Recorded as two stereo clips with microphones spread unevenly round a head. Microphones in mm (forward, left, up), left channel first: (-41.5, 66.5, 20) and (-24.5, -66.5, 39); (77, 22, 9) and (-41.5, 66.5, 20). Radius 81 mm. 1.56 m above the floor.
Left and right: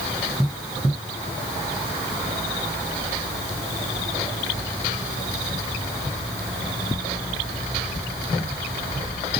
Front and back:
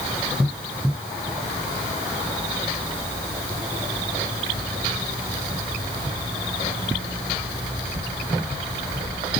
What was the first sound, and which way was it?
Only background noise.